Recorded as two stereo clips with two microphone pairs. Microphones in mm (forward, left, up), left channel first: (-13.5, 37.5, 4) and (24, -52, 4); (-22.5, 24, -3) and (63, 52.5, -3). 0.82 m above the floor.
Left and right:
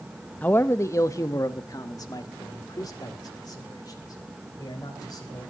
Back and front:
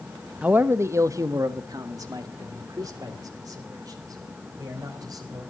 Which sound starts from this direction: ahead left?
A man speaking, at 0.4 s.